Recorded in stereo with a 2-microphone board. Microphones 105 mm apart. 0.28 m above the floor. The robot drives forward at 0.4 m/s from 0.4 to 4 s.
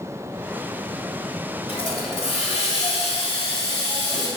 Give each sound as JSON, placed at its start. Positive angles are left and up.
{"t": 1.7, "sound": "a hiss", "side_deg": 65, "distance_m": 0.7}